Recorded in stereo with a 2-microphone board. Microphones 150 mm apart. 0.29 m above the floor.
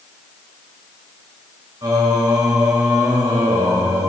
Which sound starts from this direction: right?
Singing, at 1.8 s.